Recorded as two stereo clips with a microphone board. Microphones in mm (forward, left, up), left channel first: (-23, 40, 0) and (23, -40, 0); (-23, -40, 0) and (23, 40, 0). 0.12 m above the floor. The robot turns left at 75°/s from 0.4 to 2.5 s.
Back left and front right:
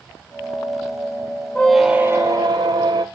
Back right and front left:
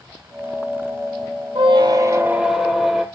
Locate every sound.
1.6 s a squeak: 45° left, 0.5 m; by 3.0 s 25° right, 0.5 m